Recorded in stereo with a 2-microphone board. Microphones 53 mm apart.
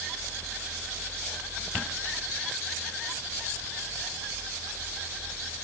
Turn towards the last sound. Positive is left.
No sound to turn to.